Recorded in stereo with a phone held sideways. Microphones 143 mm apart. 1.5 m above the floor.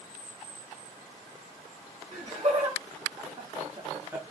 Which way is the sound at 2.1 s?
55° right (ahead or behind).